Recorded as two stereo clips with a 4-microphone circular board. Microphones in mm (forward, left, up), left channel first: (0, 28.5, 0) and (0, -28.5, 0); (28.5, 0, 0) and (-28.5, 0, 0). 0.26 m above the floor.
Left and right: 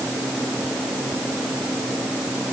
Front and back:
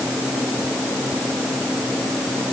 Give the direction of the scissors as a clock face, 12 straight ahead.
I don't hear scissors.